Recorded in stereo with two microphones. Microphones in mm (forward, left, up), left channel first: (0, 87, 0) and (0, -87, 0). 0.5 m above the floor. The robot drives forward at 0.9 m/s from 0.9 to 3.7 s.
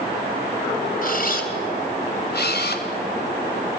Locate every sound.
1.0 s a camera shutter: 55° left (ahead or behind), 2.5 m; by 2.9 s 65° left (ahead or behind), 2 m